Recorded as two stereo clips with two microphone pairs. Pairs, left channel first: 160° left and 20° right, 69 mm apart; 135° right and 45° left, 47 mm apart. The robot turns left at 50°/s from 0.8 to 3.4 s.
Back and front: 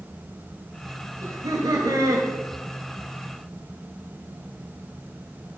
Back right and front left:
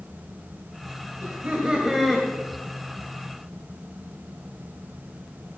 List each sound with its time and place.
1.2 s laughter: 5° left, 1.6 m; by 2.3 s 50° right, 1.6 m